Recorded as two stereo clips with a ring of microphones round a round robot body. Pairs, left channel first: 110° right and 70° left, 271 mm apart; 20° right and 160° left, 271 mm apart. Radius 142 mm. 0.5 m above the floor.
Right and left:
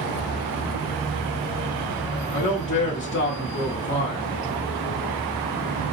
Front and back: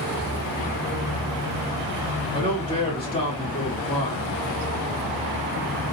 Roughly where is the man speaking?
Right.